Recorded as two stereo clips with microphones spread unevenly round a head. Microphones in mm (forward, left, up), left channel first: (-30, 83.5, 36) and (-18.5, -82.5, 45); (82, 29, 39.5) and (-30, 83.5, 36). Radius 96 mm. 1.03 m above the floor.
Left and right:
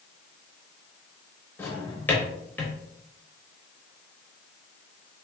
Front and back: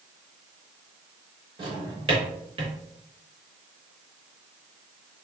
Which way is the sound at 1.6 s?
170° left.